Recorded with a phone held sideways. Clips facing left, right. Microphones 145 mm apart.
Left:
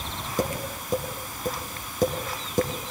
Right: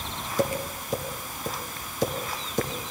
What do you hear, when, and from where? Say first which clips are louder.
0.4 s tapping: right 2 dB; 50° left (ahead or behind), 5 m